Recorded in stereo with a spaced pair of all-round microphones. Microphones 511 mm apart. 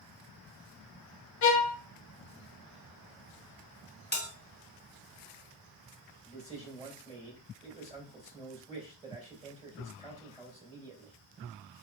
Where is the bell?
20° left (ahead or behind), 1.3 m.